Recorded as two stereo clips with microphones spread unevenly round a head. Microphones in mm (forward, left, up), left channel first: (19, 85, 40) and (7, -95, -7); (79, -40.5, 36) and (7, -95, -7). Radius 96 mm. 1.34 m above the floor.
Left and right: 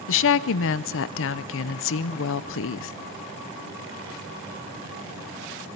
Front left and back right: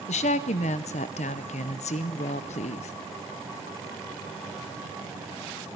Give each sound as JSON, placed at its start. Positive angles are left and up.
{"t": 0.1, "sound": "a woman speaking", "azimuth_deg": 65, "distance_m": 0.5}